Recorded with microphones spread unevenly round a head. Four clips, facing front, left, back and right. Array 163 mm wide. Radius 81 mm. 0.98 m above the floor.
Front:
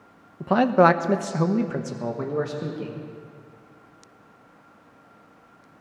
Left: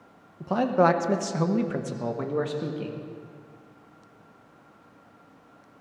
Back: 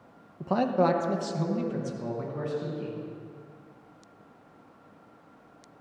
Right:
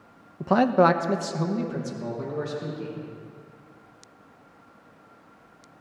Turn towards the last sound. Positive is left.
turn(degrees=45)